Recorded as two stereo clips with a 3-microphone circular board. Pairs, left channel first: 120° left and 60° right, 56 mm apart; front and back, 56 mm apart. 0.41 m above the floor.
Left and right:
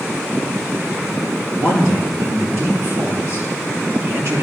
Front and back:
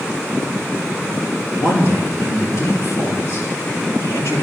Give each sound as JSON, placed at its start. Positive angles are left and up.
{"t": 1.6, "sound": "a man speaking", "azimuth_deg": -30, "distance_m": 5.0}